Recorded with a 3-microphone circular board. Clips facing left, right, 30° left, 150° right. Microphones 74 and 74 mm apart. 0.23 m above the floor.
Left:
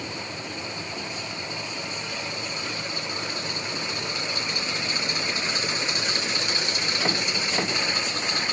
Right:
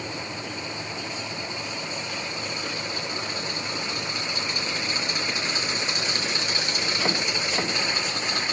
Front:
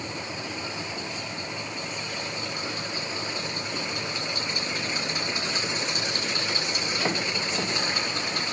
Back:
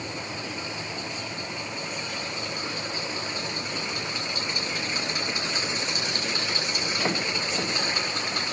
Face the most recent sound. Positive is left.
No sound to turn to.